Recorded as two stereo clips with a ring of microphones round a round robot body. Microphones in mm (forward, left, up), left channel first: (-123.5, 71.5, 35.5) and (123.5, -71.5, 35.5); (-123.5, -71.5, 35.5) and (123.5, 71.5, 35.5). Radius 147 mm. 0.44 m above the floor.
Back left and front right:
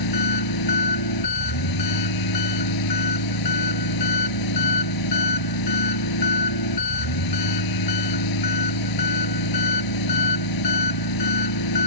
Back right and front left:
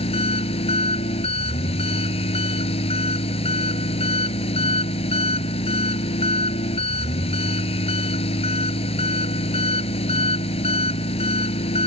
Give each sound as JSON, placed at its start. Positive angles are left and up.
{"t": 0.0, "sound": "an engine running", "azimuth_deg": 140}